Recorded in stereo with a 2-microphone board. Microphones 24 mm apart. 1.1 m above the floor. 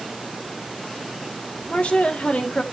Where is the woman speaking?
60° left (ahead or behind), 1.9 m.